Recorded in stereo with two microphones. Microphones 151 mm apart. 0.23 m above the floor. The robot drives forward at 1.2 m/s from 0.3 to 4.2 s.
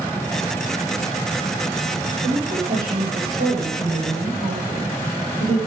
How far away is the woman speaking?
About 8.5 m.